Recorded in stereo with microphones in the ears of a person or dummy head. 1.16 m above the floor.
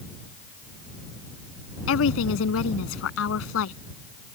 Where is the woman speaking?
80° left.